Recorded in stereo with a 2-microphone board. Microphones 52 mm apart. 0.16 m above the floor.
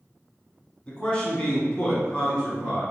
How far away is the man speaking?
About 1.4 m.